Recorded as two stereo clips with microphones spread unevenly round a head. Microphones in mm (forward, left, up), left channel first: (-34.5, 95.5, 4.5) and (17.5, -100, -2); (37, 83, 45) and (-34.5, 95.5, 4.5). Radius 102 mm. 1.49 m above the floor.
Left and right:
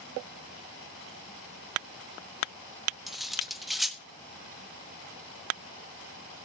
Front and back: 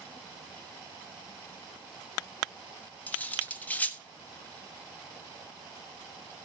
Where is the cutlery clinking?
15° left, 1.0 m.